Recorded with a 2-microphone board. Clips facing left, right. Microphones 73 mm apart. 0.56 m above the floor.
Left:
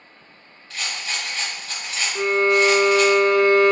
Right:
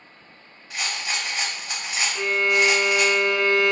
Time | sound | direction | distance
0.7 | a rattle | 15° right (ahead or behind) | 0.8 m
2.1 | a violin | 45° left (ahead or behind) | 0.5 m